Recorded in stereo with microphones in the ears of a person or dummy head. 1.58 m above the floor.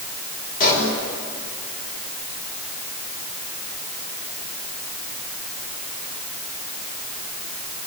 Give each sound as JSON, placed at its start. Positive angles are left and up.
{"t": 0.6, "sound": "a pop", "side_deg": 45, "distance_m": 6.5}